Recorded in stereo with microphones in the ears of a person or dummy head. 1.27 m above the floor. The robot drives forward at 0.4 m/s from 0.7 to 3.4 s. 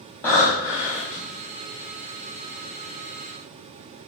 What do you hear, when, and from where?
0.2 s breathing: 5° left (ahead or behind), 0.8 m